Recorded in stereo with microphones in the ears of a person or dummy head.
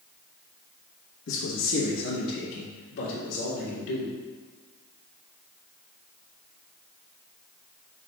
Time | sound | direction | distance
1.3 | a man speaking | 85° left | 1.5 m